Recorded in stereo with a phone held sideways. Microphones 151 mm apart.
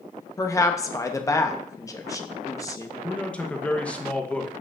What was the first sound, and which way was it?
A woman speaking, 20° left (ahead or behind).